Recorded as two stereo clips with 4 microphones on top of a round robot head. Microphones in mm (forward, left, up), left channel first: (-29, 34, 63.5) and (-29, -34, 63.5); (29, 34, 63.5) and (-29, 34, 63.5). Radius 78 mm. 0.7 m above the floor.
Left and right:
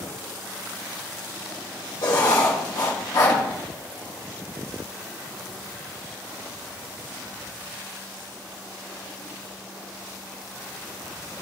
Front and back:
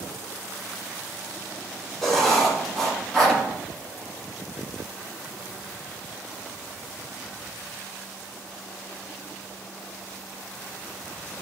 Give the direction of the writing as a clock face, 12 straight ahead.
9 o'clock.